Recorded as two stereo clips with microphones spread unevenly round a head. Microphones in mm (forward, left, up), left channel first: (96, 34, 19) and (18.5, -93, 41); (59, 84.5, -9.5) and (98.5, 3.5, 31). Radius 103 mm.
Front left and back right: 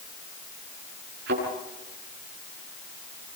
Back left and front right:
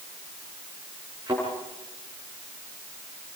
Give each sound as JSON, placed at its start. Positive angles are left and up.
{"t": 1.3, "sound": "a thud", "azimuth_deg": -135, "distance_m": 8.5}